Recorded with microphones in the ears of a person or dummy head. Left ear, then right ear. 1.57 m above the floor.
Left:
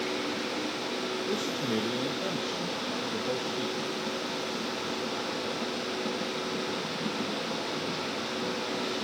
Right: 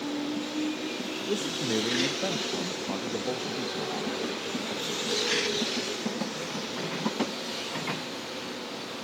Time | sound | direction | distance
1.3 | a man speaking | 40° right (ahead or behind) | 1.0 m